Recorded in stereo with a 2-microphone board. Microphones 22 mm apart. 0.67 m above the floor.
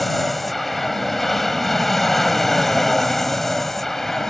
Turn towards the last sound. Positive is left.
turn(degrees=20)  # may be behind; listen again after turning